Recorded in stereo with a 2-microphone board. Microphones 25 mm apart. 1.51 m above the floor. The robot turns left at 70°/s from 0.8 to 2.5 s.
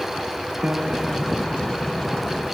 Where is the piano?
130° right, 1.3 m; by 1.7 s 165° left, 1.3 m.